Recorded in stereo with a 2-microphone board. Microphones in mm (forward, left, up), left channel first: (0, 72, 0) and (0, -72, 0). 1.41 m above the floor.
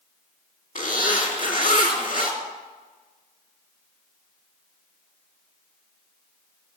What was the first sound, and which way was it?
A zipper, 70° left (ahead or behind).